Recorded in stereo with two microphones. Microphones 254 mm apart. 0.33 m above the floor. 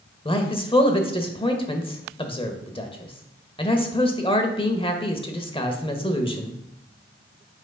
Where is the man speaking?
20° left (ahead or behind), 0.9 m.